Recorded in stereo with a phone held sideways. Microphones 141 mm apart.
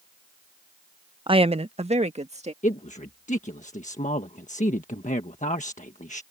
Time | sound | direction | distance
1.3 | a woman speaking | 35° right (ahead or behind) | ?
2.6 | a man speaking | 60° left (ahead or behind) | ?